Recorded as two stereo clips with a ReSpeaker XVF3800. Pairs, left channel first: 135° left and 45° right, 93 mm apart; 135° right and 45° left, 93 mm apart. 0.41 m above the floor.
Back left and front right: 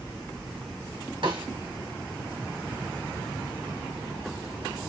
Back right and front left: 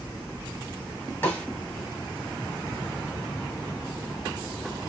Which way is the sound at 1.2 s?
65° right.